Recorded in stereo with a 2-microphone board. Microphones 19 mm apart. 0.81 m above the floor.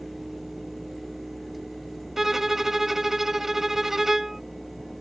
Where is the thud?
No thud in this recording.